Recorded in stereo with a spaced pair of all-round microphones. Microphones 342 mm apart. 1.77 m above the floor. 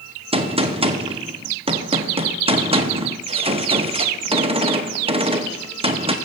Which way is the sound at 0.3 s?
15° right (ahead or behind).